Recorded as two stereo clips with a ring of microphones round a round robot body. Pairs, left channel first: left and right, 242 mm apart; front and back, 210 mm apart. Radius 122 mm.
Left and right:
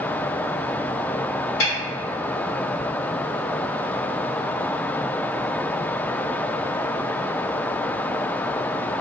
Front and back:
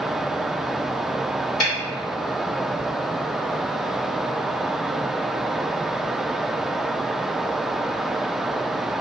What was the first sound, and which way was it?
A snare drum, 40° left.